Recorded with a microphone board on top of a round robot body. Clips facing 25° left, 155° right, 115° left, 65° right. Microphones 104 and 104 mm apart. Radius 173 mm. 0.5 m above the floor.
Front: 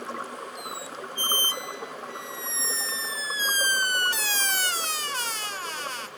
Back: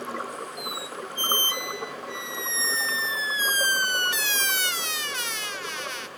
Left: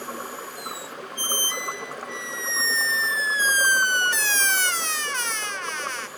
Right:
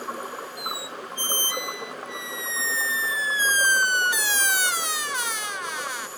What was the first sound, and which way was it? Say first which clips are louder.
A squeak: back 2 dB, right 1 dB; 5° left.